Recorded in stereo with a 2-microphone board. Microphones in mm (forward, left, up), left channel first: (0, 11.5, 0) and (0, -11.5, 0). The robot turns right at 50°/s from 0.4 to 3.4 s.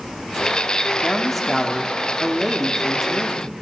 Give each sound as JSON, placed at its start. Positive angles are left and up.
{"t": 1.0, "sound": "a man speaking", "side_deg": 15, "distance_m": 1.0}